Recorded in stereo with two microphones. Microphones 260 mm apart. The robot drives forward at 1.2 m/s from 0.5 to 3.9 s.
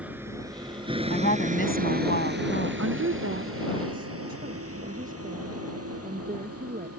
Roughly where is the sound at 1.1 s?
Left.